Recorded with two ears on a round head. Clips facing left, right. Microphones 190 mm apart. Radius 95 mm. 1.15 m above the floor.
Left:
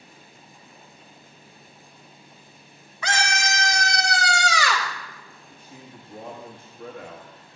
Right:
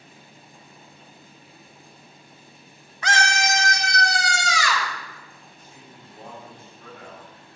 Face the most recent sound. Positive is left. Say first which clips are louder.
# left 7 dB
turn(degrees=50)  # may be behind; listen again after turning